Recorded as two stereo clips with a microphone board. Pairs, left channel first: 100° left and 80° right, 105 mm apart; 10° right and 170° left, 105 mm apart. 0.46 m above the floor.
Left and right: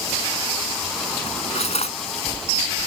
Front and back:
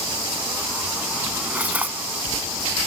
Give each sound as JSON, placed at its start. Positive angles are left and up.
{"t": 1.3, "sound": "cutlery clinking", "azimuth_deg": 95}